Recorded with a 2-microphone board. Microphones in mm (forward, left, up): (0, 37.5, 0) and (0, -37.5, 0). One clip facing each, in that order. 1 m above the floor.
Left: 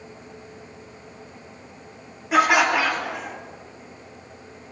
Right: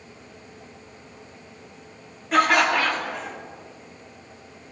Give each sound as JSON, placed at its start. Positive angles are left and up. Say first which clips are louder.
{"t": 2.3, "sound": "laughter", "louder": "left 1 dB", "side_deg": 10, "distance_m": 1.6}